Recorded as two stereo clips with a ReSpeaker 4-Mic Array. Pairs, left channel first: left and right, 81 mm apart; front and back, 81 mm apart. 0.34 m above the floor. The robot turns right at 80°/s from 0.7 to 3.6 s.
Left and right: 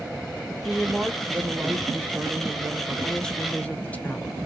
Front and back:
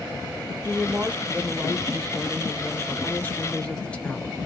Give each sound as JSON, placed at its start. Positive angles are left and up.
{"t": 0.6, "sound": "a woman speaking", "azimuth_deg": 180, "distance_m": 1.1}